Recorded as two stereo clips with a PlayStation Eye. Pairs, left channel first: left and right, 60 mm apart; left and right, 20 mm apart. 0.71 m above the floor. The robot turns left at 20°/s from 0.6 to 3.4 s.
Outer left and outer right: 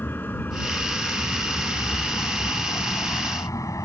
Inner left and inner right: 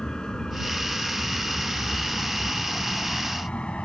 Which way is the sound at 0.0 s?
40° left (ahead or behind).